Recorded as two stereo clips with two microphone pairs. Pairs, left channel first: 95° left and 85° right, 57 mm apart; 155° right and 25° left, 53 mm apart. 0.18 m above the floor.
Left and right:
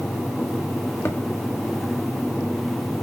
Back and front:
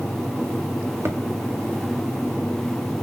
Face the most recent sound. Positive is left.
turn(degrees=60)